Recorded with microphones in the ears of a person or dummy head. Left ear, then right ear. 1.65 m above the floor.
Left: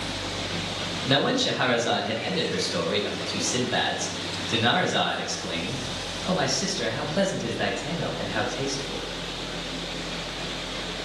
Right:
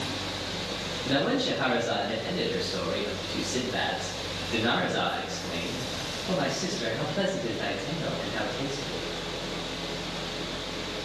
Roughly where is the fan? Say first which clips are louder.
Left 2 dB; right.